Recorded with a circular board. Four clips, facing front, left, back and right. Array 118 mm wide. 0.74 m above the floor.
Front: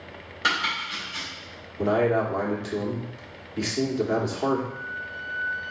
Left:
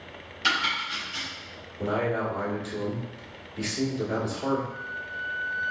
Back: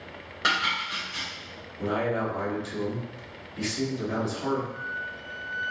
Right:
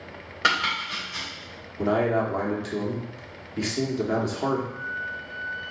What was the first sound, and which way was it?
Chopping, 100° right.